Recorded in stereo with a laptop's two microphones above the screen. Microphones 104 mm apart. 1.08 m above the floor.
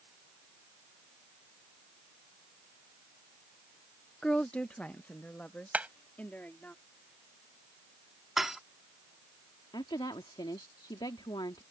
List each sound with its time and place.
4.2 s a woman speaking: 5° left (ahead or behind); by 6.7 s 15° left (ahead or behind)
5.7 s hammering: 15° right (ahead or behind)
8.4 s dishes clattering: 5° right (ahead or behind)
9.7 s a woman speaking: 50° left (ahead or behind)